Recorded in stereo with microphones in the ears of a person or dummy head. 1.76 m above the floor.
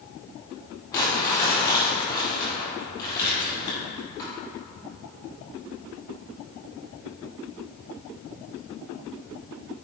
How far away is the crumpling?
About 1.9 m.